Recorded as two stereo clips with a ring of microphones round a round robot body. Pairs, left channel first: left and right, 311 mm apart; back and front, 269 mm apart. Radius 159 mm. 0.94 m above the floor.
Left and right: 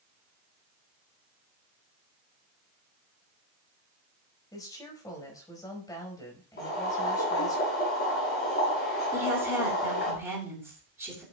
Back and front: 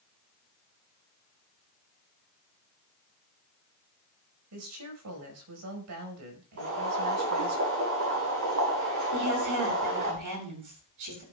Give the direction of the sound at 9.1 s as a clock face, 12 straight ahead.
12 o'clock.